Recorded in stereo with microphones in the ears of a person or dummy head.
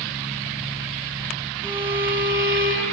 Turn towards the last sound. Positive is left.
turn(degrees=-60)  # may be behind; listen again after turning